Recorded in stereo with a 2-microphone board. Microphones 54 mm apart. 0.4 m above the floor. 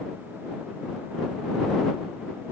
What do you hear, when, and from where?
Only background noise.